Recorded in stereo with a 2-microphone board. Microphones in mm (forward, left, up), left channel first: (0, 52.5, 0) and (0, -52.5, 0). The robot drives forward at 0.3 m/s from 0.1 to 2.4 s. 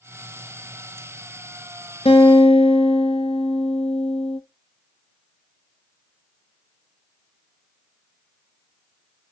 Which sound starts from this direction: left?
A guitar, at 2.0 s.